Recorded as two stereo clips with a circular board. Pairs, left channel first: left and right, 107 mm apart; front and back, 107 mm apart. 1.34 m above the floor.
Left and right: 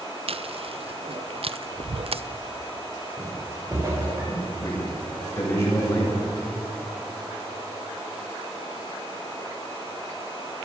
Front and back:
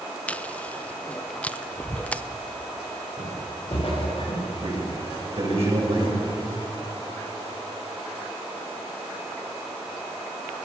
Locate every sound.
0.3 s chewing: 75° right, 0.6 m
3.2 s footsteps: 35° right, 9 m; by 4.5 s 30° right, 10 m
4.6 s a man speaking: 155° left, 9 m